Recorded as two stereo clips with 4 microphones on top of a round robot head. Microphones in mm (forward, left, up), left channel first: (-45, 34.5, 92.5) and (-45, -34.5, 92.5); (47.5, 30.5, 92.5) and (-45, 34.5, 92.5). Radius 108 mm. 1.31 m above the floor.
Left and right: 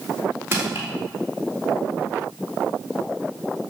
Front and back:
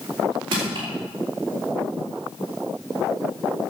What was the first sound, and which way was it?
Crushing, 145° right.